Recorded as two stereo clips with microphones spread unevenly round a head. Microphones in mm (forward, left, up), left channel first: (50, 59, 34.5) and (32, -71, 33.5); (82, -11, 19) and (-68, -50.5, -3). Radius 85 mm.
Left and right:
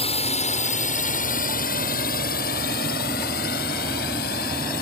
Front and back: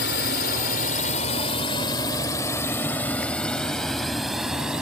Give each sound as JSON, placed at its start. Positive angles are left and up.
{"t": 0.0, "sound": "a drone", "azimuth_deg": 40}